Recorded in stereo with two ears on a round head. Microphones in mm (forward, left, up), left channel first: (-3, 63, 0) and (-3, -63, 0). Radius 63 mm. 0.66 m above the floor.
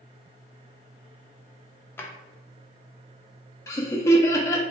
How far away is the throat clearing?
I don't hear throat clearing.